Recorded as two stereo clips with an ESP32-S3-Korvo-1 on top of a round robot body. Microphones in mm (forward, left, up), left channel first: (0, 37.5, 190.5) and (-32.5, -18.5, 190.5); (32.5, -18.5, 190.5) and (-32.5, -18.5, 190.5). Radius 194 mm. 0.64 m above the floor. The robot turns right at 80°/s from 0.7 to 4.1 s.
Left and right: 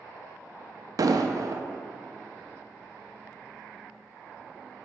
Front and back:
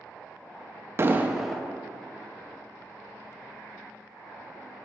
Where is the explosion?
130° right, 0.6 m; by 1.6 s 80° right, 0.6 m.